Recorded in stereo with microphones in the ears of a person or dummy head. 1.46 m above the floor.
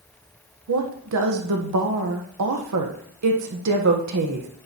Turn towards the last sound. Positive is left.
turn(degrees=-80)